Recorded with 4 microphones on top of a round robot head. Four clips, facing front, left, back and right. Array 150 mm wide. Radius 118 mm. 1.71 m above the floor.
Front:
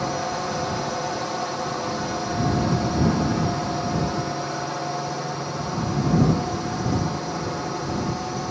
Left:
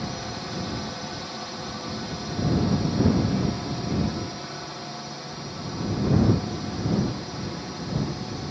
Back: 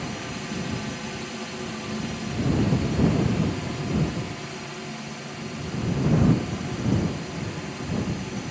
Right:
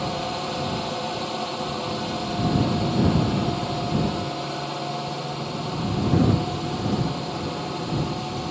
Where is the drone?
30° right.